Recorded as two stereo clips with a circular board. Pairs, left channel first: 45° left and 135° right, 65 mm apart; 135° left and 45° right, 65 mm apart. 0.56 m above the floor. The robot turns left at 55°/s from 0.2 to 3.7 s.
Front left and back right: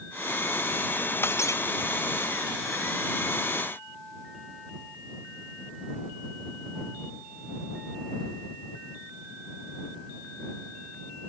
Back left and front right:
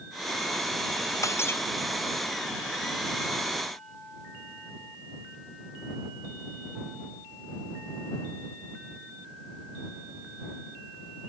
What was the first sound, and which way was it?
Breaking glass, 95° left.